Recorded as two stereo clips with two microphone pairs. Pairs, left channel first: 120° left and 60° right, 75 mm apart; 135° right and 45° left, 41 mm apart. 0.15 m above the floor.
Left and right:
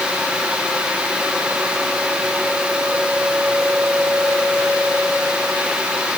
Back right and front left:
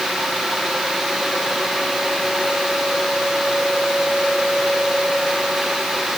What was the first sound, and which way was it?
Only background noise.